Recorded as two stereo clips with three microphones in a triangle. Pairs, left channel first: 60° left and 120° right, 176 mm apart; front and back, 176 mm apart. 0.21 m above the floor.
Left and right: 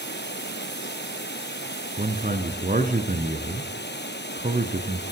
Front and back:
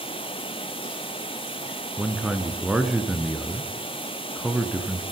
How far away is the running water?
About 2.5 m.